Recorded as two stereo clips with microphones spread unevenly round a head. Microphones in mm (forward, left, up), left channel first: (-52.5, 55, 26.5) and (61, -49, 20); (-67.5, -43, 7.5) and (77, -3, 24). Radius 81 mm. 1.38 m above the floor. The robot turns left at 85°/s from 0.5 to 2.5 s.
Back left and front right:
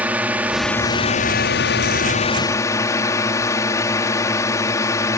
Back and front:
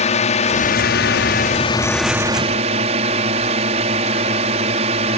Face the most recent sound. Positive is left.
turn(degrees=65)